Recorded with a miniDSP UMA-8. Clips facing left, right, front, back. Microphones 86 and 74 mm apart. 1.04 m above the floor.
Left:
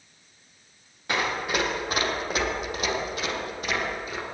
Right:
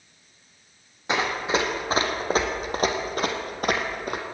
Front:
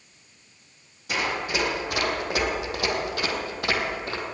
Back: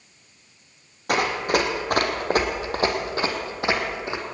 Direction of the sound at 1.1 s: 155° right.